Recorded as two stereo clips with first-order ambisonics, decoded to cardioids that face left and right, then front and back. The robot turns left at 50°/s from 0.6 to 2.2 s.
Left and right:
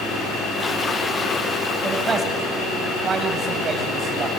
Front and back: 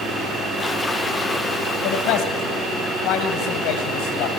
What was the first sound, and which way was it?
A man speaking, 5° right.